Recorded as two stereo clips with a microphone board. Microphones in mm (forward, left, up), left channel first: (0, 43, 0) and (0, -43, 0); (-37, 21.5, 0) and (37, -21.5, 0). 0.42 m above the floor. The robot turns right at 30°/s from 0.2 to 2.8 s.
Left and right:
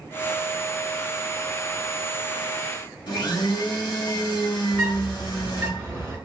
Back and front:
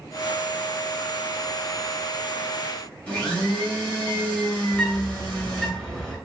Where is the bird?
125° right, 1.3 m.